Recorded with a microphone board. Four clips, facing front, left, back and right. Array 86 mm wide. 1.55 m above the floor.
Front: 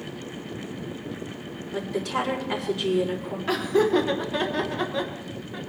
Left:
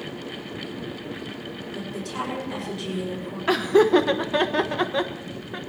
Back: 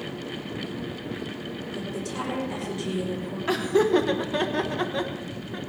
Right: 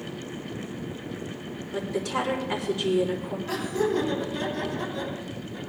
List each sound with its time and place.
1.7 s a woman speaking: 40° right, 4 m
3.5 s laughter: 95° left, 1.5 m